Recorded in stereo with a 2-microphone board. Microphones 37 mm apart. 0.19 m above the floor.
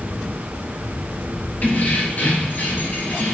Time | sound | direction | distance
1.6 | keys jangling | 50° left (ahead or behind) | 2.5 m